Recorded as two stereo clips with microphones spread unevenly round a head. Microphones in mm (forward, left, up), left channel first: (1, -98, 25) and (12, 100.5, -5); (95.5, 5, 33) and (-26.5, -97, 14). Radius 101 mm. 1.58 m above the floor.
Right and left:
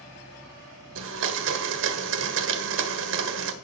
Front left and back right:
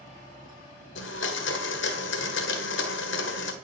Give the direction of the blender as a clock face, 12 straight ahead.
10 o'clock.